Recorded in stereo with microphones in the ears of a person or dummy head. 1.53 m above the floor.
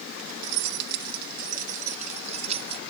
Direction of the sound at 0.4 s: 70° right (ahead or behind).